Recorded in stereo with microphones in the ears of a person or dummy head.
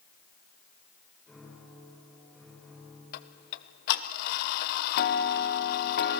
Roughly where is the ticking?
Left.